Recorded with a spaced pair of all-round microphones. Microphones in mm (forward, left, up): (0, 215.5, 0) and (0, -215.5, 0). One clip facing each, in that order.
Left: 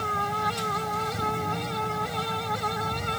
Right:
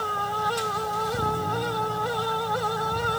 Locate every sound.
0.0 s a fan: 40° left (ahead or behind)